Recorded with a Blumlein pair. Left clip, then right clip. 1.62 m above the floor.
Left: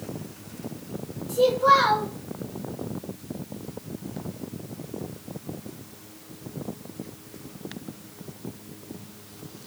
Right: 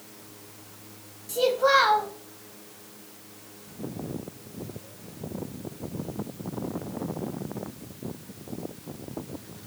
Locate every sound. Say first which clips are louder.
1.3 s a child speaking: left 3 dB; 65° right, 1.2 m